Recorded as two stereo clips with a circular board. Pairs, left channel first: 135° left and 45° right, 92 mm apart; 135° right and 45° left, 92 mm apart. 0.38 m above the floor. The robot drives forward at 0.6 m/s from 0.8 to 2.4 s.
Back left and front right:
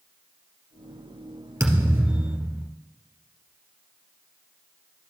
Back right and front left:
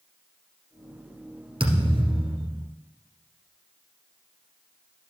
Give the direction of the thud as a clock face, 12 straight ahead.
11 o'clock.